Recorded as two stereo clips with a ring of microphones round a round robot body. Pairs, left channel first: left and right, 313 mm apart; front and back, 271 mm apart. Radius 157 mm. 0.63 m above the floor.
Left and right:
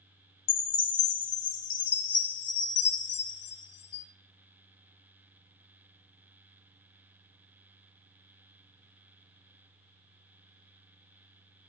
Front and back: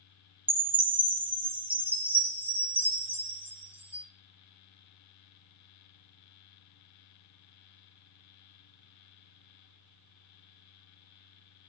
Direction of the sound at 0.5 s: 95° left.